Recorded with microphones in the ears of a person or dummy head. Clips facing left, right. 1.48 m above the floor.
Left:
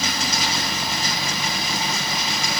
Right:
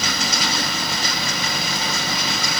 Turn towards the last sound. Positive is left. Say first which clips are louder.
# right 1 dB
turn(degrees=-60)  # may be behind; listen again after turning